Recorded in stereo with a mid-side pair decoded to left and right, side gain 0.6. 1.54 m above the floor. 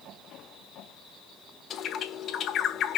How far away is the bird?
About 1.3 m.